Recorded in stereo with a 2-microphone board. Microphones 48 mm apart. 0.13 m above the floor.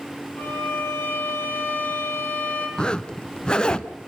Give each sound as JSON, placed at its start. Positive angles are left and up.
{"t": 0.4, "sound": "a violin", "side_deg": 50, "distance_m": 6.0}
{"t": 2.8, "sound": "a zipper", "side_deg": 15, "distance_m": 0.9}